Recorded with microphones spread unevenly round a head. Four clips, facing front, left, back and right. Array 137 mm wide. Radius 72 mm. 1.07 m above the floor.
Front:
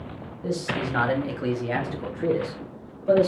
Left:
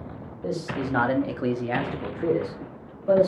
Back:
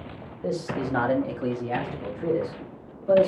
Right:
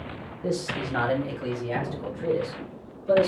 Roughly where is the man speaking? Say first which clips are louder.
Even, even; behind.